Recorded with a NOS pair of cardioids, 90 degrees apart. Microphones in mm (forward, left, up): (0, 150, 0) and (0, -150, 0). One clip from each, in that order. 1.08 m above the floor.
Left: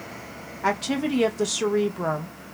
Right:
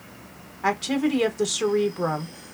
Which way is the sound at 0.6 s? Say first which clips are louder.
Right 1 dB; straight ahead.